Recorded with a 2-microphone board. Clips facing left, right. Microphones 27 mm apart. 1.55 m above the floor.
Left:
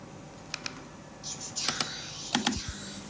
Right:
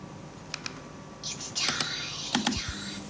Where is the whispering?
65° right (ahead or behind), 1.3 m.